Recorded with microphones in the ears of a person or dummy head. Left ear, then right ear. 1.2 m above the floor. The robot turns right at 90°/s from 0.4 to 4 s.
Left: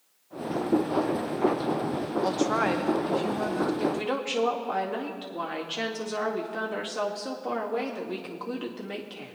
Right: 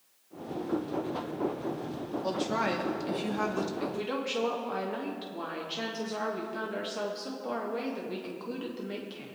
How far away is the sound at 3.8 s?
About 2 m.